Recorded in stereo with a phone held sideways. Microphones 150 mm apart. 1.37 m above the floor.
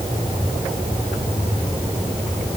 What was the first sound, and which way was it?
Only background noise.